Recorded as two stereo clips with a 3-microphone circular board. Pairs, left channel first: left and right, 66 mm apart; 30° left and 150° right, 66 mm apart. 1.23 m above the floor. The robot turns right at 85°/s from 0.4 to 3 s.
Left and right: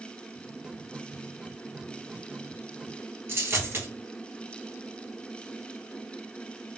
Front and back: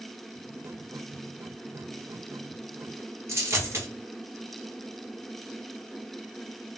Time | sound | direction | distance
3.3 | a dropped coin | 125° right | 1.9 m